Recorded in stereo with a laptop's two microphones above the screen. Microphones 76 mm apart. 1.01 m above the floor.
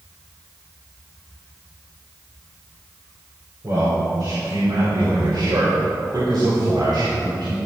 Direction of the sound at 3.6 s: 50° right (ahead or behind).